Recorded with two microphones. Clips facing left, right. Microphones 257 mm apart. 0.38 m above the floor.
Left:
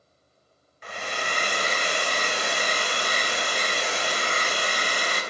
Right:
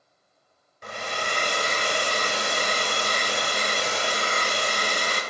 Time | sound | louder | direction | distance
0.8 | a hair dryer | right 1 dB | 45° right (ahead or behind) | 1.1 m